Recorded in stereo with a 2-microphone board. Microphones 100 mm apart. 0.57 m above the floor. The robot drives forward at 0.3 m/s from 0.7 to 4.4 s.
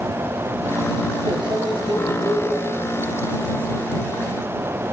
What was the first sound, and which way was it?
A microwave, 60° right (ahead or behind).